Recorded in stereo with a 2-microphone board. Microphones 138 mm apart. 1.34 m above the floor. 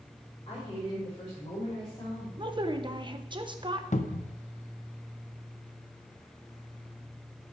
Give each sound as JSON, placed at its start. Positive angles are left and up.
{"t": 0.5, "sound": "a woman speaking", "side_deg": 45, "distance_m": 4.0}
{"t": 2.4, "sound": "a woman speaking", "side_deg": -35, "distance_m": 1.0}
{"t": 3.9, "sound": "a cupboard door", "side_deg": 60, "distance_m": 0.6}